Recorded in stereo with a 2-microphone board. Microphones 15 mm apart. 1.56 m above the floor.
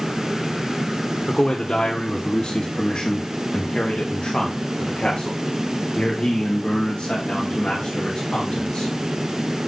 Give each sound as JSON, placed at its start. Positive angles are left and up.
{"t": 1.3, "sound": "a man speaking", "side_deg": 60, "distance_m": 1.7}